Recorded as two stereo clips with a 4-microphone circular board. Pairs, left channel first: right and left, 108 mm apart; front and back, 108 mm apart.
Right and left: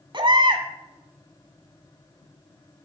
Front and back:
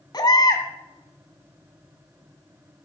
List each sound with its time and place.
0.1 s a baby crying: 50° left, 1.8 m